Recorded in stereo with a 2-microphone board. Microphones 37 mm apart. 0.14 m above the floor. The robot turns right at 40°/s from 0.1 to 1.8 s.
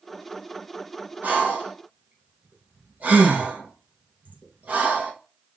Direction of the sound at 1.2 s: 45° right (ahead or behind).